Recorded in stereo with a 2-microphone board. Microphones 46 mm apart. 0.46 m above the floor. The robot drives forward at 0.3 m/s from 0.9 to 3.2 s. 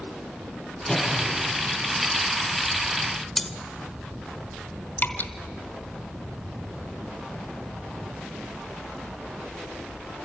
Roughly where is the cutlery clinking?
Centre.